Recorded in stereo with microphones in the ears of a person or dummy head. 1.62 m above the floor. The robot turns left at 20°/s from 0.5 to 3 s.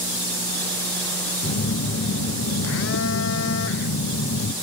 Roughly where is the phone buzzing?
Behind left.